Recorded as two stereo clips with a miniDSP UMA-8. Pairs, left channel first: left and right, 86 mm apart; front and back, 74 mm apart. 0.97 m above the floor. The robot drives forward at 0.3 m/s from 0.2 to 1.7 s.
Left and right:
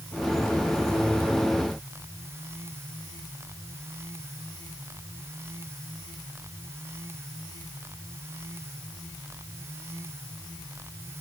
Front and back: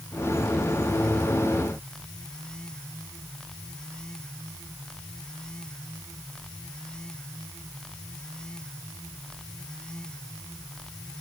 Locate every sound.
Only background noise.